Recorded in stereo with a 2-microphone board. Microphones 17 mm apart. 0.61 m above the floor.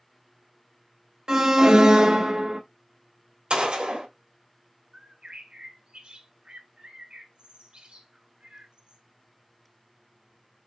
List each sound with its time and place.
1.3 s an alarm: 45° right (ahead or behind), 0.7 m
3.5 s a gunshot: 75° right (ahead or behind), 1.8 m
4.9 s a bird: 80° right, 1.1 m